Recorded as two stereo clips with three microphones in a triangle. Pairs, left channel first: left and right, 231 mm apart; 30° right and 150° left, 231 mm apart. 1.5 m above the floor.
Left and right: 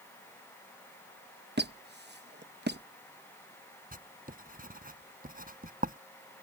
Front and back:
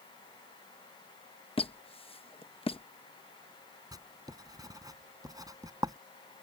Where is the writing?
135° right.